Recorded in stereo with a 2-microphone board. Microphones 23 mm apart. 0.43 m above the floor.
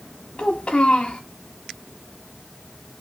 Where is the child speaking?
45° left (ahead or behind), 1.0 m.